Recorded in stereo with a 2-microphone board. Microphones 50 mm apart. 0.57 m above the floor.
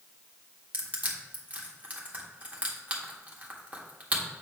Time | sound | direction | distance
0.7 | crushing | 30° right (ahead or behind) | 1.5 m